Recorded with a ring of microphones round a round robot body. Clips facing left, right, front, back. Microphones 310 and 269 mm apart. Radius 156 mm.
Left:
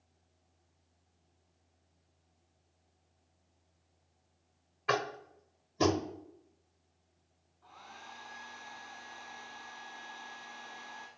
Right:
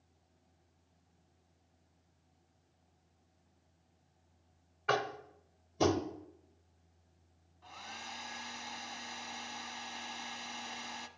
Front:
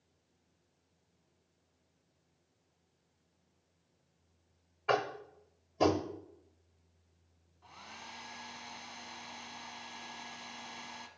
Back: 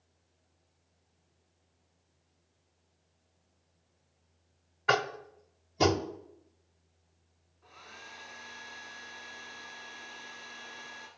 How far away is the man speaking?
No man speaking in this recording.